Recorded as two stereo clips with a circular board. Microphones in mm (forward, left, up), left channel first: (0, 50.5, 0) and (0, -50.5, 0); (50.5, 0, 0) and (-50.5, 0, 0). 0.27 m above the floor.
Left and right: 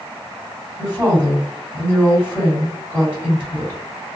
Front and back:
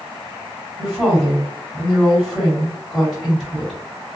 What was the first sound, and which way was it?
A woman speaking, 95° left.